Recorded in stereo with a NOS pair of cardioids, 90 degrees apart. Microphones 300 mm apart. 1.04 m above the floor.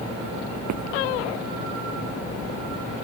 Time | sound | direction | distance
0.7 | footsteps | 70° right | ?